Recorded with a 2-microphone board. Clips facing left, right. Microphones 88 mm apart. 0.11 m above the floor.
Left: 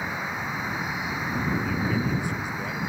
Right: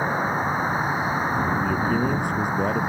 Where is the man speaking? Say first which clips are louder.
Right 4 dB; 50° right (ahead or behind).